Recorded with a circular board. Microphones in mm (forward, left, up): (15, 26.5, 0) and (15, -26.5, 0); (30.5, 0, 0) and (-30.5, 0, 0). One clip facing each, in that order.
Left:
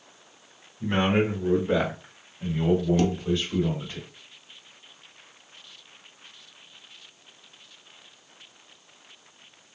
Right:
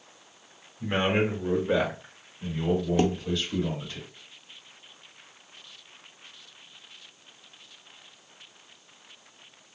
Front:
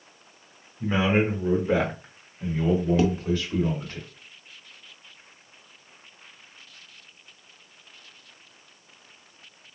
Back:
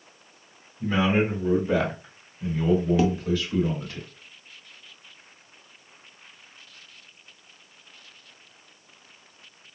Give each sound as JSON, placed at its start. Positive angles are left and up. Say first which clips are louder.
{"t": 0.8, "sound": "a man speaking", "louder": "left 2 dB, even", "azimuth_deg": -30, "distance_m": 1.3}
{"t": 3.0, "sound": "dishes clattering", "louder": "even, even", "azimuth_deg": -100, "distance_m": 0.6}